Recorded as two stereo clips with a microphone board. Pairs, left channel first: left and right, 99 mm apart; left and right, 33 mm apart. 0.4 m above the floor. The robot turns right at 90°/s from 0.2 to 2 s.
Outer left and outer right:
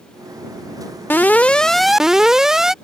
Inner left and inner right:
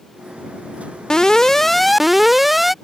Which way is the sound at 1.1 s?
20° left (ahead or behind).